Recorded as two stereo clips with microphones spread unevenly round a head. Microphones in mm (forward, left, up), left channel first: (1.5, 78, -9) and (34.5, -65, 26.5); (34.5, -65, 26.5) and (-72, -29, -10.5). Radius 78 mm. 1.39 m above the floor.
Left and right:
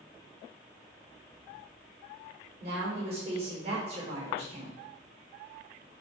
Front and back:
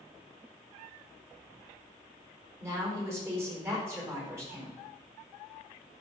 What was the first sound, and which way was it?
A woman speaking, 130° right.